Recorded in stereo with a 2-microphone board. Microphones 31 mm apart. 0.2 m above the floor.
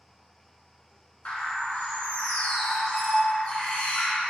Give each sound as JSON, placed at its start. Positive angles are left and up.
{"t": 1.2, "sound": "a bird", "side_deg": 45, "distance_m": 0.6}